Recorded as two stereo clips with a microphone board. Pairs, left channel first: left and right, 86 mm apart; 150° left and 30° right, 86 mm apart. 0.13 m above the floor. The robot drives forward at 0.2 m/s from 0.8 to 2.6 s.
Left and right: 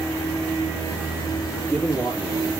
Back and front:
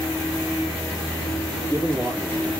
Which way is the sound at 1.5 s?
175° left.